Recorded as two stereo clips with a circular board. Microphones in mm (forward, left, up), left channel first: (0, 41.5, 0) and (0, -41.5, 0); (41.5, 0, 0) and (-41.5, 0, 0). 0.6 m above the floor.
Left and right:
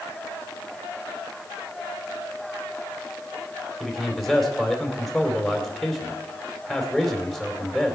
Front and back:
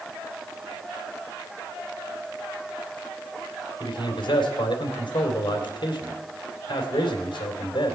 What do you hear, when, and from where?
3.8 s a man speaking: straight ahead, 2.5 m